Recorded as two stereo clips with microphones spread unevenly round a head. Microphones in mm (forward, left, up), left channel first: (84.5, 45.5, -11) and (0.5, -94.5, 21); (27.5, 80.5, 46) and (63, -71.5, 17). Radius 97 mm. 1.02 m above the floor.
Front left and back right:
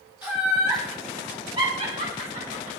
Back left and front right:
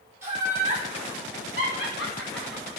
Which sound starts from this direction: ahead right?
Laughter, at 0.2 s.